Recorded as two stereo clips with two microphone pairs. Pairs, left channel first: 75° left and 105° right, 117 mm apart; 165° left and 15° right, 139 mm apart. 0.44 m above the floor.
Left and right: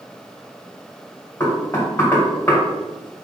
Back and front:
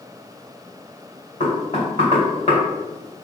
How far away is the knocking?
About 1.8 m.